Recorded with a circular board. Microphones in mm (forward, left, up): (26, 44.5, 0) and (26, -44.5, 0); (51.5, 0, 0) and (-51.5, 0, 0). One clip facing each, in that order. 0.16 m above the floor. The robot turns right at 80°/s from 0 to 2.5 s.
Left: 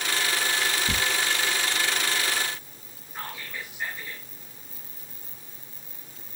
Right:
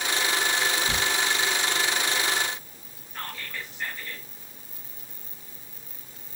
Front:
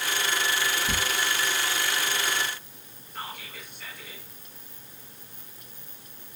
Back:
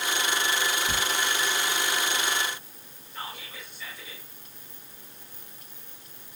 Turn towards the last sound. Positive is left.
turn(degrees=15)